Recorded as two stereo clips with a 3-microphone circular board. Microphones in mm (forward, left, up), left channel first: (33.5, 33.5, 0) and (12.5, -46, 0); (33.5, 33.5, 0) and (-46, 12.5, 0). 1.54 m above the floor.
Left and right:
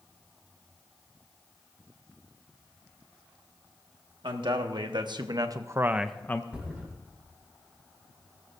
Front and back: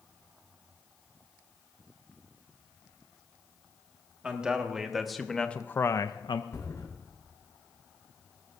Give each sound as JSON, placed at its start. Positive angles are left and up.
{"t": 4.2, "sound": "a man speaking", "azimuth_deg": -85, "distance_m": 1.8}
{"t": 6.5, "sound": "a thud", "azimuth_deg": -30, "distance_m": 6.0}